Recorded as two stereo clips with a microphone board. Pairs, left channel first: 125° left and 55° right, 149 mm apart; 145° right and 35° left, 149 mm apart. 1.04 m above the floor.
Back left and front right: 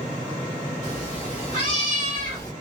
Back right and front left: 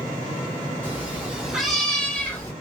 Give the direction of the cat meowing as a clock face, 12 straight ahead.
9 o'clock.